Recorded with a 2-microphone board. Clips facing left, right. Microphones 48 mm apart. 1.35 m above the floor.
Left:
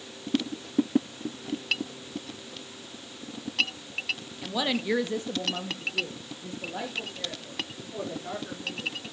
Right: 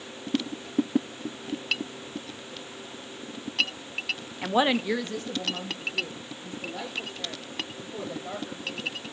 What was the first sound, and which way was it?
A woman speaking, 45° right (ahead or behind).